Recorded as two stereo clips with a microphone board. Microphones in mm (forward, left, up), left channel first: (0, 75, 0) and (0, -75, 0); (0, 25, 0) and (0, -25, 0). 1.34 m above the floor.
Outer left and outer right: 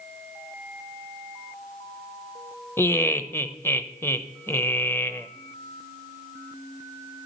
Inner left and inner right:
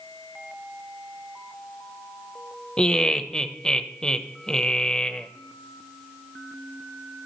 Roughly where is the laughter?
Centre.